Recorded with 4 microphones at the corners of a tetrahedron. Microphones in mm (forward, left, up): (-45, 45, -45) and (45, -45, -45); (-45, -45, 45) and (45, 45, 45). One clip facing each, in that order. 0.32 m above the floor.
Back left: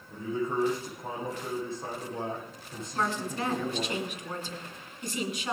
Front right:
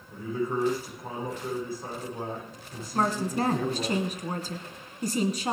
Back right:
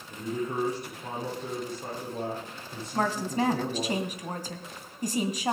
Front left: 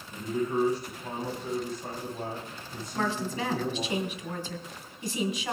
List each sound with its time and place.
0.1 s a man speaking: 160° right, 10 m
2.9 s a woman speaking: 90° right, 2 m